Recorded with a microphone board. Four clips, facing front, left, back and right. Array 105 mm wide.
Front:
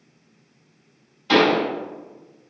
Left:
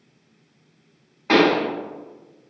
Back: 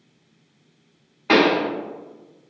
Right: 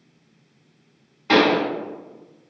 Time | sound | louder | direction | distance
1.3 | a pop | even, even | 165° left | 1.0 m